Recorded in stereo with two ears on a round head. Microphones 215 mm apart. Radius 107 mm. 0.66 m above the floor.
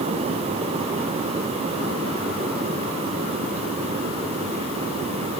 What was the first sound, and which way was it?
Only background noise.